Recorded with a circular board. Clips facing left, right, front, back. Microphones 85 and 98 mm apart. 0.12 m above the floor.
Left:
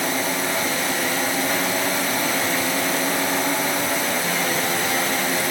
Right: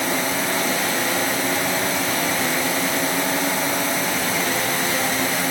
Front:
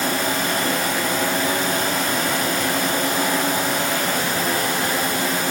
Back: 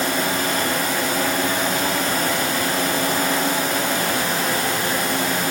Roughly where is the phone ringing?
No phone ringing in this recording.